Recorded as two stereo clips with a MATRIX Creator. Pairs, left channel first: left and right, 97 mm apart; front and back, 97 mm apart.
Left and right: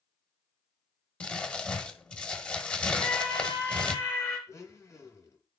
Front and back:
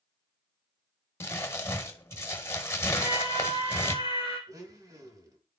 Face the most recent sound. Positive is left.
turn(degrees=140)